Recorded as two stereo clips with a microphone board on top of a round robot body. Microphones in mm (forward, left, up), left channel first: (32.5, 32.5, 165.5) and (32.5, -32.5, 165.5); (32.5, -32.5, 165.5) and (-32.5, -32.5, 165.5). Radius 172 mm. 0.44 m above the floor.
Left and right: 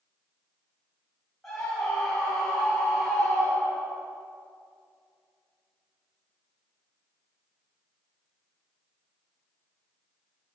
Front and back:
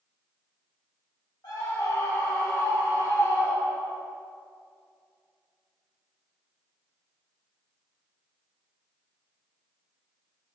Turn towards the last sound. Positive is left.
turn(degrees=5)